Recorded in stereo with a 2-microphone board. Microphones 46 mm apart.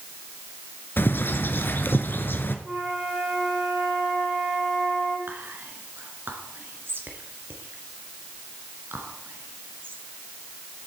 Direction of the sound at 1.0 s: 55° left (ahead or behind).